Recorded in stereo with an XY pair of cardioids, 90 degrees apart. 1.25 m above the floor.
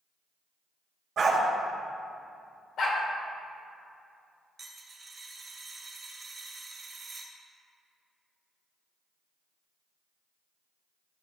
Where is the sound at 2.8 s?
65° left, 2 m.